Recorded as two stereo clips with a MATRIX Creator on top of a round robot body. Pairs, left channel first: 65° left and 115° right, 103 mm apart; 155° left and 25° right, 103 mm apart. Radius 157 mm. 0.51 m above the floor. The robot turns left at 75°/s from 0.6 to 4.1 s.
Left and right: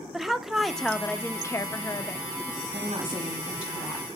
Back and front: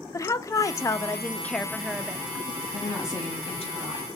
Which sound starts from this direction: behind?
A woman speaking, at 0.1 s.